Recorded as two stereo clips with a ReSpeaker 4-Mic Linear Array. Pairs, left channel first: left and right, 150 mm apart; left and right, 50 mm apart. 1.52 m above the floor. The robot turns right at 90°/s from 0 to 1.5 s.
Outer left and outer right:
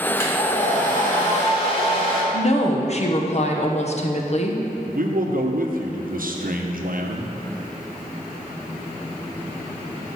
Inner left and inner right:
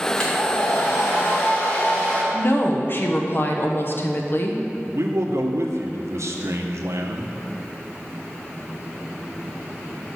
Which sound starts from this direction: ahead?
A hair dryer, at 0.2 s.